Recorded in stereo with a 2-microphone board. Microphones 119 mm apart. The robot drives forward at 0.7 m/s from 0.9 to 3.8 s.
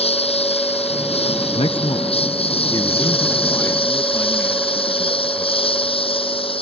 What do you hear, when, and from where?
0.0 s a lawn mower: 55° left (ahead or behind); by 6.6 s 50° left (ahead or behind)
1.6 s a man speaking: 60° left (ahead or behind); by 5.7 s 20° left (ahead or behind)